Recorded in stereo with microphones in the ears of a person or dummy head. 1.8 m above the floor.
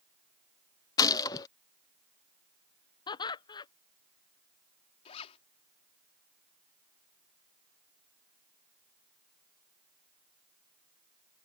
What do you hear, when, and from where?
1.0 s a gunshot: 20° left (ahead or behind)
3.1 s laughter: 25° left (ahead or behind)
5.0 s a zipper: 35° left (ahead or behind)